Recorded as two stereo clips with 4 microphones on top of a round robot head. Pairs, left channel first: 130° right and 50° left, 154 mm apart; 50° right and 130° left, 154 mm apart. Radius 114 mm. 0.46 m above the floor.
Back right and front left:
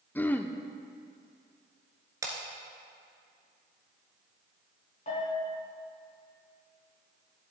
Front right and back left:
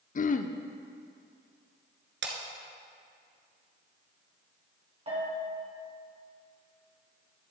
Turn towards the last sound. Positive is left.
turn(degrees=-175)